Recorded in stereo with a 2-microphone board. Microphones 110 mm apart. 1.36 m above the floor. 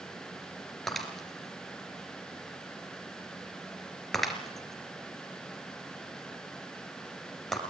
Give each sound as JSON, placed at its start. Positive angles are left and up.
{"t": 0.9, "sound": "breaking glass", "side_deg": 0, "distance_m": 2.5}